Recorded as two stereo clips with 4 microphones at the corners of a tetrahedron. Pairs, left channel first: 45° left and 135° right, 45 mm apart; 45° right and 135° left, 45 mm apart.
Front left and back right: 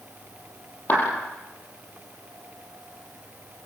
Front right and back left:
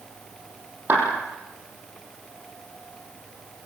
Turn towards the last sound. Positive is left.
turn(degrees=90)